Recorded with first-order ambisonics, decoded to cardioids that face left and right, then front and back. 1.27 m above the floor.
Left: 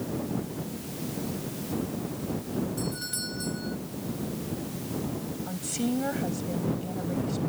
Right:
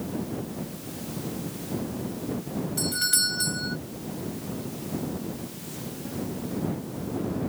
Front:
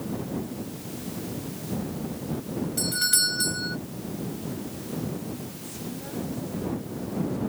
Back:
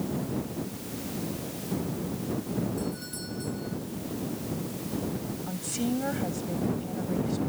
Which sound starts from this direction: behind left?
A woman speaking, at 5.5 s.